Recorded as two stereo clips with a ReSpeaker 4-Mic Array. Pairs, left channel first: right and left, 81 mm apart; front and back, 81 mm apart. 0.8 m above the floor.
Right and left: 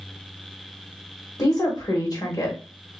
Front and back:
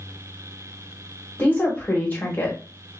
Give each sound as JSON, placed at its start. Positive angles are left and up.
{"t": 1.4, "sound": "a woman speaking", "azimuth_deg": -60, "distance_m": 1.1}